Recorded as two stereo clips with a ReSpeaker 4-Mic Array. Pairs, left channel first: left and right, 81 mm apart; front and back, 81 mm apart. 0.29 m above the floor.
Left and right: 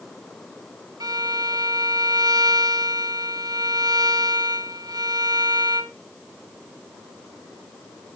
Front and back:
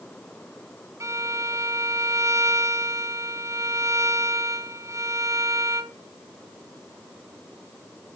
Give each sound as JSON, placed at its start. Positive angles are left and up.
{"t": 1.0, "sound": "a violin", "azimuth_deg": -125, "distance_m": 0.6}